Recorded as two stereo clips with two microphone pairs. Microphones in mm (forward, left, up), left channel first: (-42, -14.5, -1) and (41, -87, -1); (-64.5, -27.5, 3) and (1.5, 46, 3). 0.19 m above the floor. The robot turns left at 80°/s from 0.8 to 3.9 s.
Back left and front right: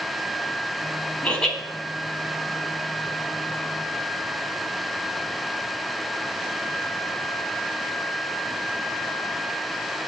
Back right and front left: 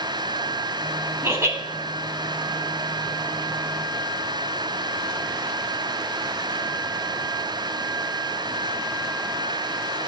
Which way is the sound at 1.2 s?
75° left.